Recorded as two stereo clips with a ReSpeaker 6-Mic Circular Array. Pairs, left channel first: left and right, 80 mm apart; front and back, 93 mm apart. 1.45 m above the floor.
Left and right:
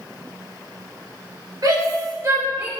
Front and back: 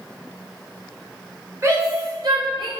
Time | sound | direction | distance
1.6 | a shout | 125° right | 3.5 m